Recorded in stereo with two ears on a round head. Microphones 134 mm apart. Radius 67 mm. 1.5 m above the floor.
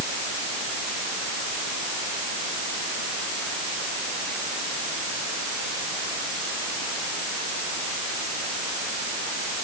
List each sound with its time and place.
Only background noise.